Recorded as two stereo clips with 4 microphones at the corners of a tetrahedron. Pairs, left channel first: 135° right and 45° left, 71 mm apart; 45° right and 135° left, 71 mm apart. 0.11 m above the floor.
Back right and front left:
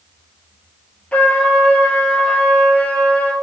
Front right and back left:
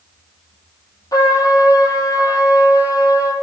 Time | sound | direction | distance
1.1 | a trumpet | 65° right | 0.8 m